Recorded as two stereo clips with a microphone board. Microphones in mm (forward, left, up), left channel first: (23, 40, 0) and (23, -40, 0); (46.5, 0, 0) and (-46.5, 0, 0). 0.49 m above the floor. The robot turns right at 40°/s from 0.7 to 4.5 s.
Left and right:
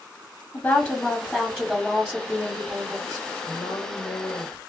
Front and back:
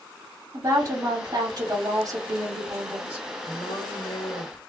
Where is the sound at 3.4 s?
30° left, 2 m; by 4.6 s 70° left, 2 m.